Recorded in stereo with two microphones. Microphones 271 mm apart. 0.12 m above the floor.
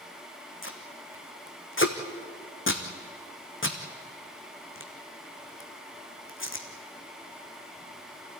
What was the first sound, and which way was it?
Tape being pulled, 45° left (ahead or behind).